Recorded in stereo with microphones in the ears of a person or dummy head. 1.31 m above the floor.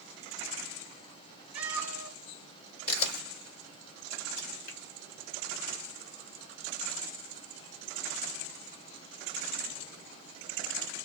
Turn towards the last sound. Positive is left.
turn(degrees=45)  # may be behind; listen again after turning